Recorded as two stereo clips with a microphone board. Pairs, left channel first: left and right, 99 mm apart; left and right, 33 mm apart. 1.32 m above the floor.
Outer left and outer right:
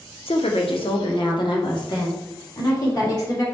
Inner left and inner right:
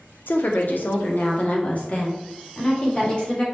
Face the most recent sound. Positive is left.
turn(degrees=40)  # may be behind; listen again after turning